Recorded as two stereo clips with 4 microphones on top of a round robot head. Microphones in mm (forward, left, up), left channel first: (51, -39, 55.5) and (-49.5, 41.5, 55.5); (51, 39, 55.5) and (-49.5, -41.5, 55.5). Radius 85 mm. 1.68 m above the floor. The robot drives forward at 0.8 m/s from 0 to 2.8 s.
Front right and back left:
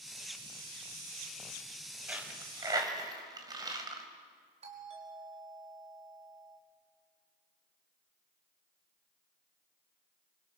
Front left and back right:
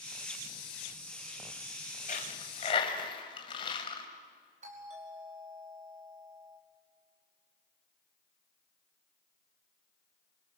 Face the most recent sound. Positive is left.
turn(degrees=-175)